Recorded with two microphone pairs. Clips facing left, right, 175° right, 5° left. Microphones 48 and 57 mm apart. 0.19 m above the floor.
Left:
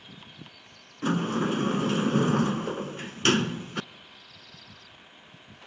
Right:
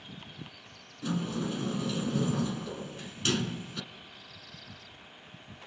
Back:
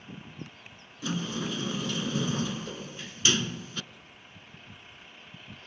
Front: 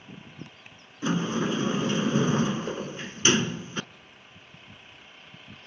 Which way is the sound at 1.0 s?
60° left.